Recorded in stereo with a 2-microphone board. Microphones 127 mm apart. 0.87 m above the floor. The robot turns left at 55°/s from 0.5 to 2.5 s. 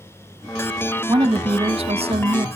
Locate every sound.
1.1 s a woman speaking: 35° right, 1.3 m; by 2.5 s 110° right, 1.3 m